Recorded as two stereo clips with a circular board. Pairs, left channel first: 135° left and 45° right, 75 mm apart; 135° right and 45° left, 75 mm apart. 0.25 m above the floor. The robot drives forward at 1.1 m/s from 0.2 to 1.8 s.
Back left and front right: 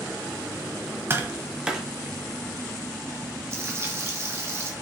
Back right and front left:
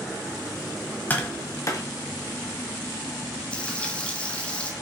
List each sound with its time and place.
1.1 s tapping: 80° right, 1.3 m; by 1.9 s 125° right, 1.4 m
3.5 s frying: 70° right, 1.7 m